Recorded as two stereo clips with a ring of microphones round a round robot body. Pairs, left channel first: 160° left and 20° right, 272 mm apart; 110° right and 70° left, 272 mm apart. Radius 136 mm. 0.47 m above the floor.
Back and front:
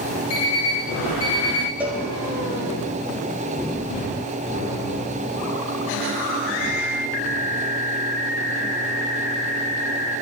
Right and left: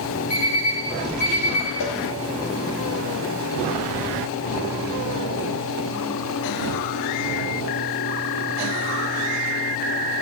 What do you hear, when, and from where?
0.3 s an alarm clock: 170° right, 4 m
1.8 s a cowbell: 105° right, 1.8 m